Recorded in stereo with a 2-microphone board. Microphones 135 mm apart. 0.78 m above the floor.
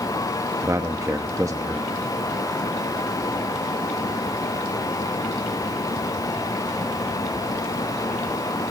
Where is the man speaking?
25° right (ahead or behind), 0.8 m.